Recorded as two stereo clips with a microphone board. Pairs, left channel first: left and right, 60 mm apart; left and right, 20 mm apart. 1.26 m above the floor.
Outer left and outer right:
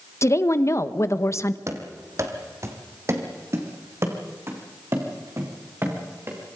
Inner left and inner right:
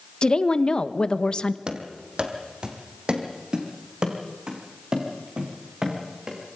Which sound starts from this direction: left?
A woman speaking, at 0.2 s.